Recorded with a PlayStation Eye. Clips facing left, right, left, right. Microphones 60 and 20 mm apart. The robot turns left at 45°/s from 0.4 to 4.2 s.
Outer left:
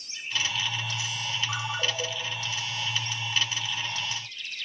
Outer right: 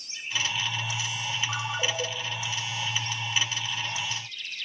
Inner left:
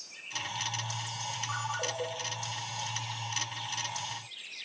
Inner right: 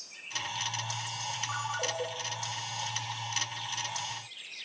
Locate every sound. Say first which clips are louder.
1.5 s a ringtone: outer right 1 dB, even; centre (ahead or behind), 0.9 m; by 2.1 s 15° right (ahead or behind), 0.9 m